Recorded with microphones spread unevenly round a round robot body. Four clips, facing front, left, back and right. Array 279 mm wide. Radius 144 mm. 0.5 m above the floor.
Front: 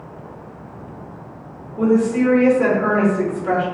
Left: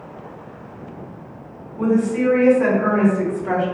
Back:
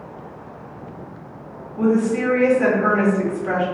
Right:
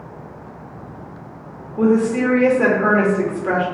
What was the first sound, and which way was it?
A woman speaking, 75° right.